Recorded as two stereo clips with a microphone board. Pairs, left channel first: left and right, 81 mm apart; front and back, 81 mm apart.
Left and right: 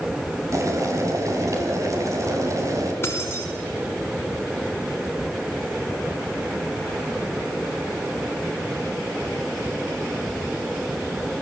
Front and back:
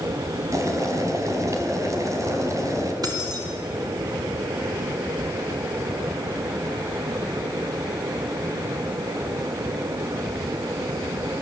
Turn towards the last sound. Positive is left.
turn(degrees=150)